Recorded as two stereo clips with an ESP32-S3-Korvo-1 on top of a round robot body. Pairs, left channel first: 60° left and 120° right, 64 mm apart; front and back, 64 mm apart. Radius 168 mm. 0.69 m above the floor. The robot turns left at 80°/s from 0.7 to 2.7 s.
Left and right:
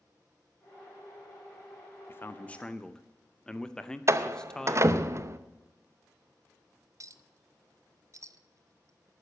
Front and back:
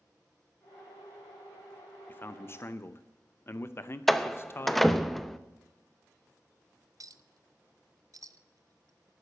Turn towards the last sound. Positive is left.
turn(degrees=-155)